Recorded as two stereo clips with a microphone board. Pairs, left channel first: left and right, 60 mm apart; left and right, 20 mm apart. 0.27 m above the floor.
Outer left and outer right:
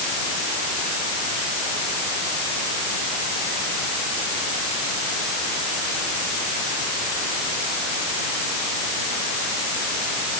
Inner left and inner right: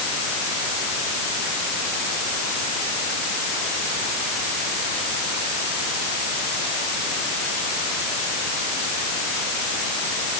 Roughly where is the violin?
No violin in this recording.